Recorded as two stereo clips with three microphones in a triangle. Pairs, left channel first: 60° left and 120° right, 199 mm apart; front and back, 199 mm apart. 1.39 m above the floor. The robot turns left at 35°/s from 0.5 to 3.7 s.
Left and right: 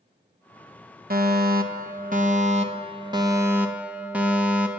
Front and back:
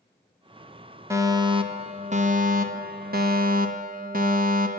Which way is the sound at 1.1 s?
110° right.